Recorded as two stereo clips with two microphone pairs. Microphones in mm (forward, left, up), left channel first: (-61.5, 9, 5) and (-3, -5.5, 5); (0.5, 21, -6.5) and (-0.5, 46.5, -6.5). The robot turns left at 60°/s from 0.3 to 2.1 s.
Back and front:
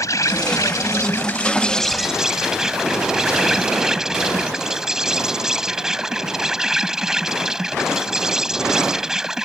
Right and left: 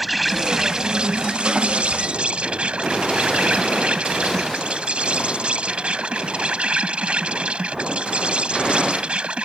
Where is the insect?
175° left; by 9.4 s 65° left.